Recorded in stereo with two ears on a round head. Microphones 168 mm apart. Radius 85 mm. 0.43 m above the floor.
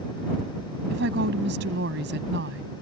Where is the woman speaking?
65° right (ahead or behind).